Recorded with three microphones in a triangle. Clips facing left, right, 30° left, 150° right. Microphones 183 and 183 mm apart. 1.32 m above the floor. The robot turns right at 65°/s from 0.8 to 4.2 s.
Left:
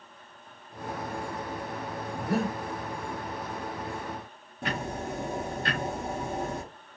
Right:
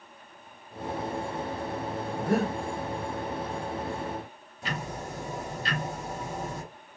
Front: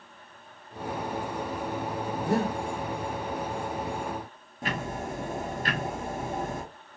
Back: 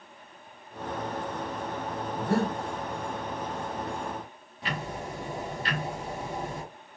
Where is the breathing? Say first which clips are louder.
Right 2 dB, even; 55° right, 0.9 m; by 2.5 s 30° right, 0.9 m.